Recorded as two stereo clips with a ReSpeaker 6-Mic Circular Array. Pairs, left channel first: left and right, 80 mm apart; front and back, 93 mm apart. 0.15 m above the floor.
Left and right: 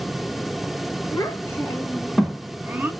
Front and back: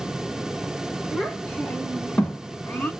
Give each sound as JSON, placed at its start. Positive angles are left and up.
{"t": 1.1, "sound": "a child speaking", "azimuth_deg": 75, "distance_m": 1.4}